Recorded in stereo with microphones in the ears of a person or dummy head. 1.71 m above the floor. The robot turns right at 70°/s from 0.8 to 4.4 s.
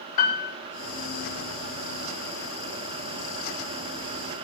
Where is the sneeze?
No sneeze in this recording.